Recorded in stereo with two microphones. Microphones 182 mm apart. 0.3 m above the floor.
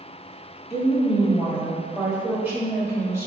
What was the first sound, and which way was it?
A woman speaking, centre (ahead or behind).